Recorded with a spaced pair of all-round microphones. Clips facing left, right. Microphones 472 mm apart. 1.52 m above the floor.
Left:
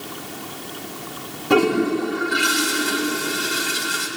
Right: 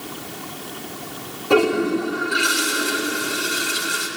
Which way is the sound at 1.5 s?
35° left (ahead or behind).